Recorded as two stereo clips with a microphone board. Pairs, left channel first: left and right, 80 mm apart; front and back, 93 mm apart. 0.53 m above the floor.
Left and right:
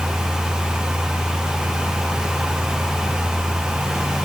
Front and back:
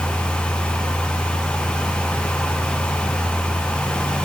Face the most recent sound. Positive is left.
No sound to turn to.